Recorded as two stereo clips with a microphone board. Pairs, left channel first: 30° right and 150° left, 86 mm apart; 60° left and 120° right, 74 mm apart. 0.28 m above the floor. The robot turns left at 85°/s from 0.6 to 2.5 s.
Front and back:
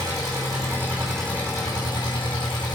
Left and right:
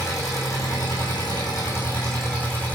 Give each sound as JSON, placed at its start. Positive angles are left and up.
{"t": 0.0, "sound": "an engine running", "azimuth_deg": 105, "distance_m": 5.5}